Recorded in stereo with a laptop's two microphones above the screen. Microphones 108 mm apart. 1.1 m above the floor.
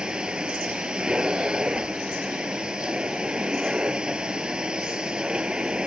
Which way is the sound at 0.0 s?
5° right (ahead or behind).